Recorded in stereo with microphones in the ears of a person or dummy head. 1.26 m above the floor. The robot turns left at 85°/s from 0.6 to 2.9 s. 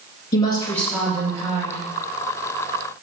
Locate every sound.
0.3 s a woman speaking: 30° left, 1.9 m; by 1.8 s 70° right, 1.9 m